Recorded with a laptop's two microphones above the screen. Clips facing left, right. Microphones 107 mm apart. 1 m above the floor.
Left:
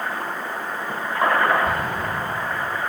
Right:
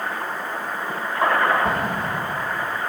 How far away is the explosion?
About 9.5 m.